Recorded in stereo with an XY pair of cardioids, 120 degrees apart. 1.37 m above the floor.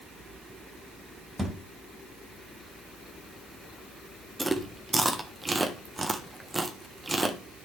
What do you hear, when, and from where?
1.4 s a thud: 15° right, 2.5 m
4.4 s chewing: 15° right, 1.2 m